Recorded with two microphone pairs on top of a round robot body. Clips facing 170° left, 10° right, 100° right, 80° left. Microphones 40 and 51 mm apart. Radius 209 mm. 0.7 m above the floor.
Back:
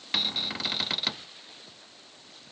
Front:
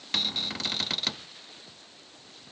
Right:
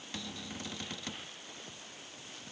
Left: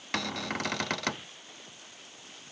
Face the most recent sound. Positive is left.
turn(degrees=90)